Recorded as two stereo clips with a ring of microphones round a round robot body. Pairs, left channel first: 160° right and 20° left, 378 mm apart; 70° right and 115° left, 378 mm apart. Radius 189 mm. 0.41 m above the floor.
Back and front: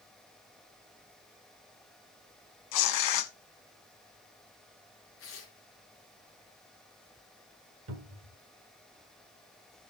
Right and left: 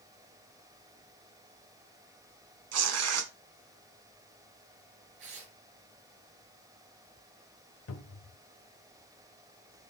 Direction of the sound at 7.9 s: 20° right.